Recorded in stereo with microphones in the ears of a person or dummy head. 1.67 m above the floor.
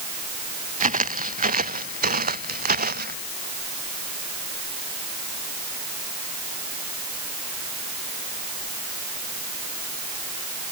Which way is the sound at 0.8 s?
35° right (ahead or behind).